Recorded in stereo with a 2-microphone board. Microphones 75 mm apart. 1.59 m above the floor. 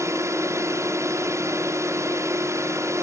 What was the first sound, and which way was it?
A drone, 40° right (ahead or behind).